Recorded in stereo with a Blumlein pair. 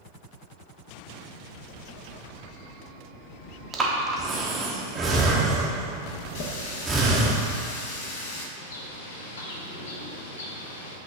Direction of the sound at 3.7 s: 15° right.